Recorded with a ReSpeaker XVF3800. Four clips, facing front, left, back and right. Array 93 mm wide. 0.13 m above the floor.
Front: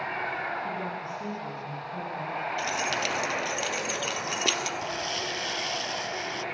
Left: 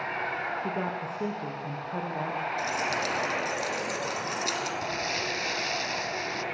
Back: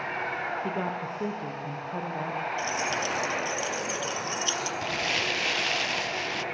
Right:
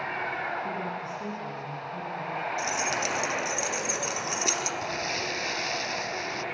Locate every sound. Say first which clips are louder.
0.6 s a woman speaking: left 1 dB, back 2 dB; 145° left, 4.5 m; by 2.5 s 125° left, 5.5 m
2.6 s keys jangling: even, front 1 dB; 15° right, 2.5 m
4.8 s crumpling: even, back 3 dB; straight behind, 0.7 m